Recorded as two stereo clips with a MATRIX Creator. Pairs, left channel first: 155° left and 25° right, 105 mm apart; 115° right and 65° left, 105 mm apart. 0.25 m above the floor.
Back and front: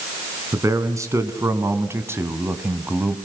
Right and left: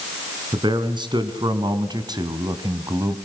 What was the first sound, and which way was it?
A man speaking, 35° left.